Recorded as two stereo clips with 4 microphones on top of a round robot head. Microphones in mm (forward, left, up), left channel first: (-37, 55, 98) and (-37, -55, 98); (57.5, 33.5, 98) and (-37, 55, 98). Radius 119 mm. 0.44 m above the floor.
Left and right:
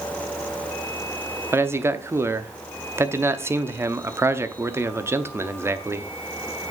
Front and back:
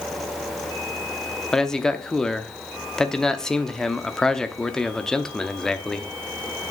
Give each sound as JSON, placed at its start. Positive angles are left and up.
{"t": 1.5, "sound": "a man speaking", "azimuth_deg": -90, "distance_m": 0.8}